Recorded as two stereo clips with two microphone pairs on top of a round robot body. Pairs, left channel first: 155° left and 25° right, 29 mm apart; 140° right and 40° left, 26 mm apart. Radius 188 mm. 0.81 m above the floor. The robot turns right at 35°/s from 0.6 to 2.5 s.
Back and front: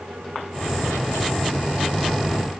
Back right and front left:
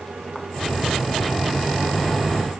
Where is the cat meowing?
No cat meowing in this recording.